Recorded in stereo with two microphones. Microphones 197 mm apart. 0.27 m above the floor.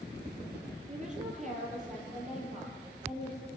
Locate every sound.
0.9 s a woman speaking: 35° right (ahead or behind), 8 m